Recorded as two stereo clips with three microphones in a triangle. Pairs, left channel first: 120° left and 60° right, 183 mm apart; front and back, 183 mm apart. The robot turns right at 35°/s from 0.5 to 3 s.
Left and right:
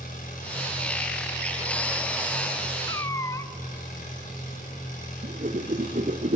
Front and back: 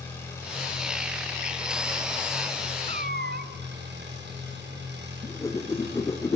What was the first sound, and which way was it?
An engine running, 75° left.